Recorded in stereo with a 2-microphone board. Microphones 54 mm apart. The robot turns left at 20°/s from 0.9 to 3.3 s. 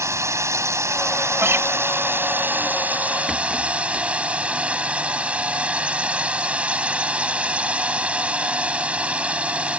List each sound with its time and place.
0.0 s a drone: 105° right; by 9.8 s 155° right
1.4 s a guitar: 50° right (ahead or behind); by 1.7 s 55° right (ahead or behind)
3.3 s a rattle: centre (ahead or behind)